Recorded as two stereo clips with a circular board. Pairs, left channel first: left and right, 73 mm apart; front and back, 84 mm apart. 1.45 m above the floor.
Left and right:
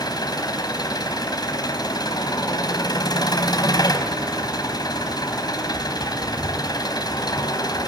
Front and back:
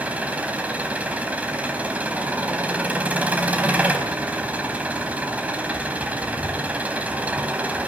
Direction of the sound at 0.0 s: 105° left.